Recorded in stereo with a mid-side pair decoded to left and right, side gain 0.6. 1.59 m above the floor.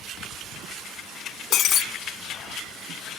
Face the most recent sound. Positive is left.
turn(degrees=55)